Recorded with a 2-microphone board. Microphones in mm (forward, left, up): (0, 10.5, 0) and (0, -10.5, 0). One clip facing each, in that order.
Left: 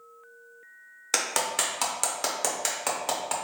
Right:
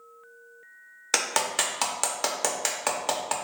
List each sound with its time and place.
1.1 s a clap: 15° right (ahead or behind), 0.5 m